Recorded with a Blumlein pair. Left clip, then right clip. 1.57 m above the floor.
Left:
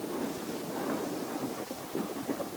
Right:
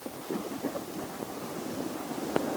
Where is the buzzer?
I don't hear a buzzer.